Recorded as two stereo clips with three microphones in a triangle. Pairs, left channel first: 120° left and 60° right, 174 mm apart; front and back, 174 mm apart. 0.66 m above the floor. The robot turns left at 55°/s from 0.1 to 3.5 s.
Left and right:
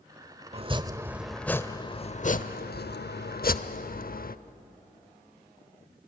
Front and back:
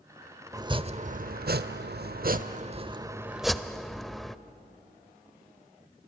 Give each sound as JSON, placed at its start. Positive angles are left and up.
{"t": 0.5, "sound": "chopping", "azimuth_deg": -110, "distance_m": 0.8}